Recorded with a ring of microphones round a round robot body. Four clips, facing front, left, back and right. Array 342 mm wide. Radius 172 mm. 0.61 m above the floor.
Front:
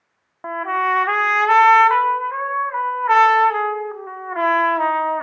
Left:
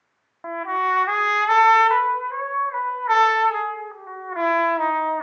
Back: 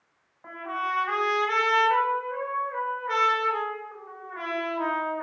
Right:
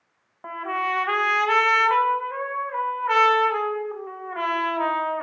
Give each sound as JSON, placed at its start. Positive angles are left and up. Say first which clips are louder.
{"t": 0.4, "sound": "a trumpet", "louder": "left 4 dB, front 10 dB", "azimuth_deg": 15, "distance_m": 0.8}